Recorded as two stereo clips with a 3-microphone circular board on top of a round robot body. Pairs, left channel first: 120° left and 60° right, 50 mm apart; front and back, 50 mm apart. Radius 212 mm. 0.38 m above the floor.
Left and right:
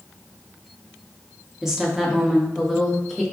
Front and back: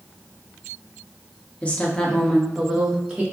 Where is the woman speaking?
15° left, 1.5 m; by 3.2 s 150° right, 1.4 m.